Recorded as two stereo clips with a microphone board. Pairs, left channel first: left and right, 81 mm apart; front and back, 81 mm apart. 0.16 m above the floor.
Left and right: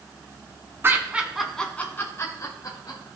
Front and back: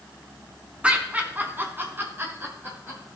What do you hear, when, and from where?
0.8 s laughter: 115° right, 1.2 m; by 3.0 s 120° left, 2 m